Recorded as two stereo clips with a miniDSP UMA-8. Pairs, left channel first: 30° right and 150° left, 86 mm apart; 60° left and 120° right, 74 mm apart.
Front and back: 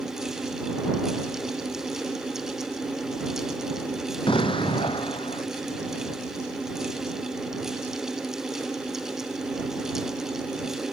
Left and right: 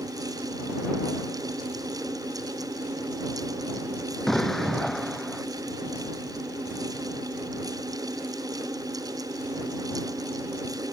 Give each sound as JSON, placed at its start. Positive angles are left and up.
{"t": 4.3, "sound": "an explosion", "azimuth_deg": -30}